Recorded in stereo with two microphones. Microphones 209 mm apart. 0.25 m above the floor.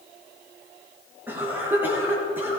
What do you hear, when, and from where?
1.3 s a cough: 10° right (ahead or behind), 4.5 m